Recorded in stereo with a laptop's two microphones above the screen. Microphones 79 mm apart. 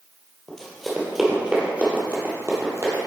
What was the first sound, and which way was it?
Running footsteps, 10° left (ahead or behind).